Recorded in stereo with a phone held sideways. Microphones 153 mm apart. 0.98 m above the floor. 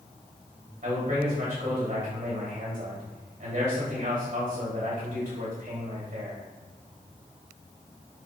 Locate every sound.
0.8 s a man speaking: 70° right (ahead or behind), 2.5 m